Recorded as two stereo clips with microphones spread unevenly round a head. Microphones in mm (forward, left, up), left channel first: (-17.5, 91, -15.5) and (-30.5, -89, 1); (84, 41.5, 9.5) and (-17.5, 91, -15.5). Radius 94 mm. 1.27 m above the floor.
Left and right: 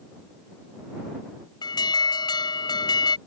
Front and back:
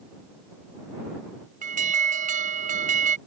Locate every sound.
1.6 s an alarm: 155° left